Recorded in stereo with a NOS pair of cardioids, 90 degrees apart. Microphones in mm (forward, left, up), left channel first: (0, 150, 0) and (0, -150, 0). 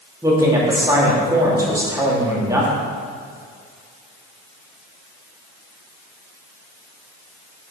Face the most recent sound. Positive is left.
turn(degrees=-10)